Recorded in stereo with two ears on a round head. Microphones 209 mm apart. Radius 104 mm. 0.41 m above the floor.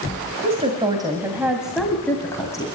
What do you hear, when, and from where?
0.4 s a woman speaking: 30° right (ahead or behind), 2 m; by 2.7 s 15° left (ahead or behind), 2.5 m